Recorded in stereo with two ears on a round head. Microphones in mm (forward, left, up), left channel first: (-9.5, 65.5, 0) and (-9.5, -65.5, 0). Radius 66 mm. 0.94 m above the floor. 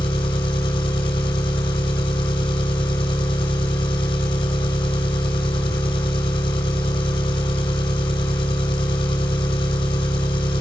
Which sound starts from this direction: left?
An engine running, at 0.0 s.